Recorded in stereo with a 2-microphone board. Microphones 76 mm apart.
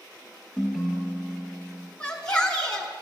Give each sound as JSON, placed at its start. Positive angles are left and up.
{"t": 0.6, "sound": "a ringtone", "side_deg": -5, "distance_m": 0.8}
{"t": 2.0, "sound": "a shout", "side_deg": 10, "distance_m": 1.1}